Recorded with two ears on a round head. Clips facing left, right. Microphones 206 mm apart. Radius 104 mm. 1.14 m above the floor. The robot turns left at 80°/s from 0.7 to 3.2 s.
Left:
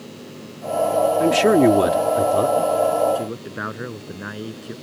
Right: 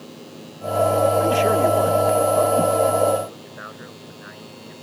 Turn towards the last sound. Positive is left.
turn(degrees=75)  # may be behind; listen again after turning